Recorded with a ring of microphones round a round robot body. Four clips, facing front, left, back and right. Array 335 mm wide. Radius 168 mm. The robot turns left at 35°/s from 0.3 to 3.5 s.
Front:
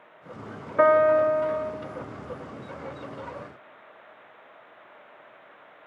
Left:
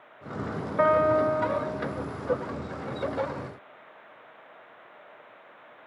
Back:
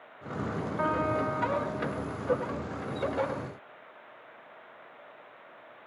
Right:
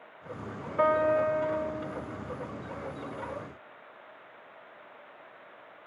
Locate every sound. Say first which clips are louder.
0.8 s a piano: left 3 dB, front 12 dB; 10° left, 1.5 m; by 1.7 s 20° right, 1.5 m